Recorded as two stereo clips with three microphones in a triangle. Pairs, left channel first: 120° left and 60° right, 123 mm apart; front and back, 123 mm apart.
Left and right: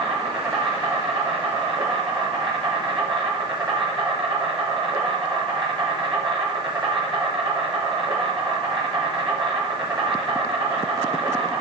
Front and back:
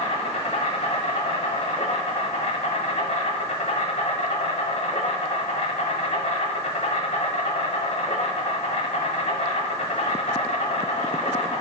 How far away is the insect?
About 1.1 m.